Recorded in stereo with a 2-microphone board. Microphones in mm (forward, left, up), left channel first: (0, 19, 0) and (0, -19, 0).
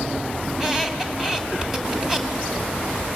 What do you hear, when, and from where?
0.5 s a squeak: 10° right (ahead or behind), 1.7 m